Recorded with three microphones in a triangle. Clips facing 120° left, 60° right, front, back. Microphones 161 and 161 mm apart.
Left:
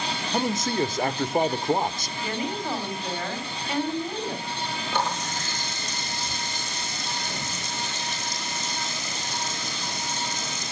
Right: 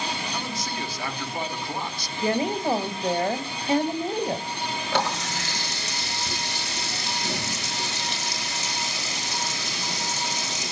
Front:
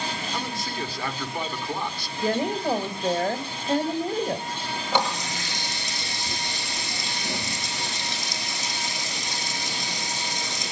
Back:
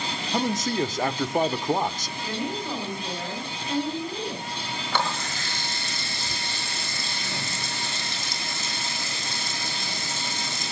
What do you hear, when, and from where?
0.3 s a man speaking: 145° left, 1.1 m
2.2 s a woman speaking: 35° right, 3 m
4.9 s a running tap: 75° right, 6 m